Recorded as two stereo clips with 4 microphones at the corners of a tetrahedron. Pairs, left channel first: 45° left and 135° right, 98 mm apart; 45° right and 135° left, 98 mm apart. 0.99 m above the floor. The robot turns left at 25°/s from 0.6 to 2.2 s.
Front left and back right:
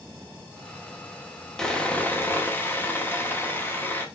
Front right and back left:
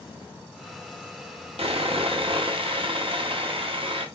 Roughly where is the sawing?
Behind left.